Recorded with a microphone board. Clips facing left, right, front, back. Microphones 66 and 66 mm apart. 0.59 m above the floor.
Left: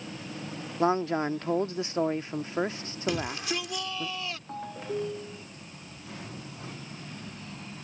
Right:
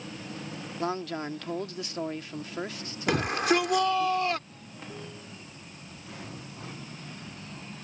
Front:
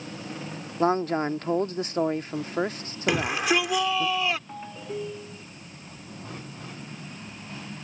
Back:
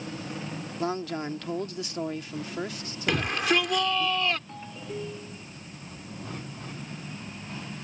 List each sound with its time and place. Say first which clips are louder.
0.8 s a man speaking: left 6 dB, front 8 dB; 35° left
3.1 s a shout: right 6 dB, front 1 dB; 80° right
4.5 s a ringtone: left 10 dB, front 2 dB; 75° left